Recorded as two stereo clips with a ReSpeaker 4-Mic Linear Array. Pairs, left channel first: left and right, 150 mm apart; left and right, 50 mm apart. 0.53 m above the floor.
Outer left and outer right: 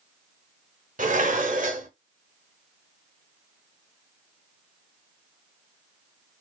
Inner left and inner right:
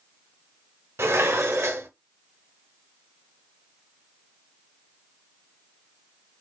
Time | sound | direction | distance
1.0 | dishes clattering | 60° right (ahead or behind) | 0.9 m